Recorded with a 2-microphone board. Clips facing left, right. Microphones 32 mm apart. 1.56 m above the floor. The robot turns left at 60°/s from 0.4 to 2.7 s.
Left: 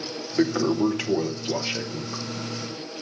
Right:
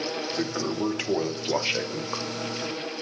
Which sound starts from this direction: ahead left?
A toilet flushing, at 0.4 s.